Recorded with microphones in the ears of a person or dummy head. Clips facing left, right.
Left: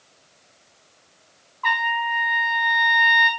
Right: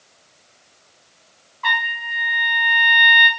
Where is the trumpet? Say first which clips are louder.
Left 4 dB; 25° right (ahead or behind), 1.6 m.